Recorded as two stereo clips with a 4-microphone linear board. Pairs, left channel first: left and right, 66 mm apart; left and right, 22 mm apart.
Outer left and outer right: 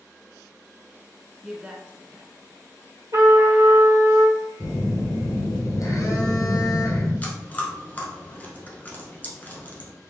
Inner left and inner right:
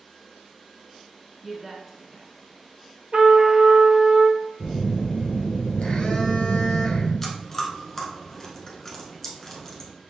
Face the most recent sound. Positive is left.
turn(degrees=25)  # may be behind; listen again after turning